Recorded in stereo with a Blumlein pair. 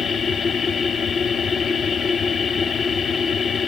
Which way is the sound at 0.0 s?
20° left.